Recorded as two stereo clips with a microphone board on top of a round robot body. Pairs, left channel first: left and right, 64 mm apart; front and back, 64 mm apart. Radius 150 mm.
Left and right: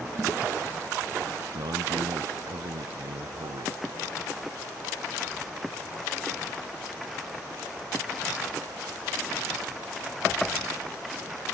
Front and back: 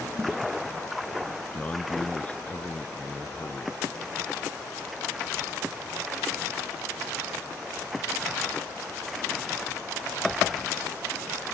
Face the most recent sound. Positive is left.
turn(degrees=-70)